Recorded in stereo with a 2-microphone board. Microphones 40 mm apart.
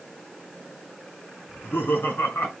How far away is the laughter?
About 4 m.